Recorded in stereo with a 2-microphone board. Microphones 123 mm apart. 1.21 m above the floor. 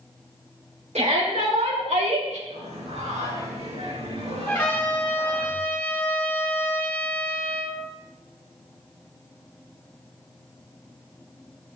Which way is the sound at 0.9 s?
80° right.